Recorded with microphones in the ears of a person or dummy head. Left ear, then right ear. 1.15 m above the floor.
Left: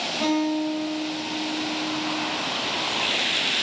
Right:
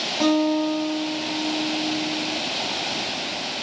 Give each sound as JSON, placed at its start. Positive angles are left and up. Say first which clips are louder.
{"t": 0.2, "sound": "a guitar", "louder": "right 5 dB", "side_deg": -10, "distance_m": 1.0}